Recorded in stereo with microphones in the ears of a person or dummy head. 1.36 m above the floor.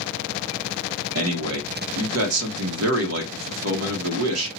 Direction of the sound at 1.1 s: 85° right.